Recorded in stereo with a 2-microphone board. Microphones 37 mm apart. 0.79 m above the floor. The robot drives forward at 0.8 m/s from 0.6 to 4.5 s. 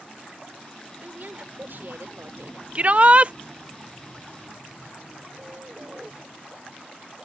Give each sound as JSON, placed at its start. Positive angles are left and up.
{"t": 1.0, "sound": "a woman speaking", "side_deg": -50}
{"t": 2.8, "sound": "a shout", "side_deg": -35}
{"t": 5.4, "sound": "a bird", "side_deg": -30}